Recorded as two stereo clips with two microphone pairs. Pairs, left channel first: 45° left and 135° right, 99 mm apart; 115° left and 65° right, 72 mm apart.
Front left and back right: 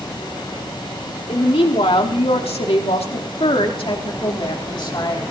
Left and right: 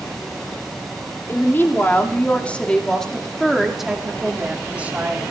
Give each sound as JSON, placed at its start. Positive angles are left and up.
{"t": 1.3, "sound": "a woman speaking", "azimuth_deg": 60, "distance_m": 2.5}